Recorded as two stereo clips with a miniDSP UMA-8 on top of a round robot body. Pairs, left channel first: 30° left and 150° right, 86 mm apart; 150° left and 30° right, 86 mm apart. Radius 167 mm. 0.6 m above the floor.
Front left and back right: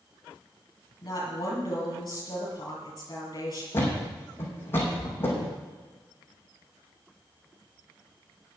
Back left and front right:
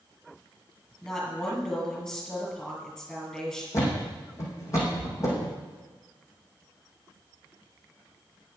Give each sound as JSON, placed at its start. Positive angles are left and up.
{"t": 1.0, "sound": "a woman speaking", "azimuth_deg": 70, "distance_m": 7.0}
{"t": 3.7, "sound": "a thud", "azimuth_deg": 95, "distance_m": 4.5}